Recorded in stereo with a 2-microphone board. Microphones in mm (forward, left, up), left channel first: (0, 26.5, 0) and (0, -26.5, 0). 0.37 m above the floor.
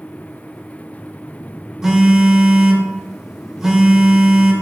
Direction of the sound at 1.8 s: 10° right (ahead or behind).